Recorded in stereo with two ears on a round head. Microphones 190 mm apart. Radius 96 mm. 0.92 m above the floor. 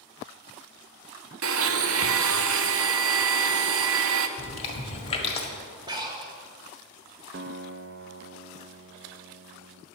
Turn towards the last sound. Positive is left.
turn(degrees=-50)  # may be behind; listen again after turning